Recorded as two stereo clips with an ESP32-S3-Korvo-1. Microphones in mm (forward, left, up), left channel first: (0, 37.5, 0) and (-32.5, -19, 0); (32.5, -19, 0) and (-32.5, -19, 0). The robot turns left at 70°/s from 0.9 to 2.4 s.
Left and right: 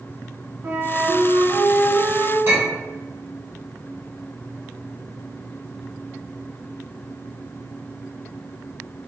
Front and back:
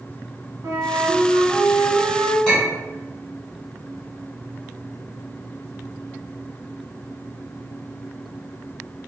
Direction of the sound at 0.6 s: 165° right.